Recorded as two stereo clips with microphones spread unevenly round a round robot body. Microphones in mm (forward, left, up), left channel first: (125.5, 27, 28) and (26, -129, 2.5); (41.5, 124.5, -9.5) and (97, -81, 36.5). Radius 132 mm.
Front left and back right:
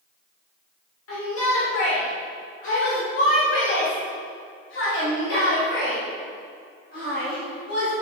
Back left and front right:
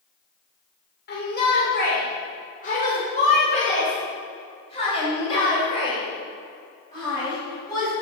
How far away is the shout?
About 3 m.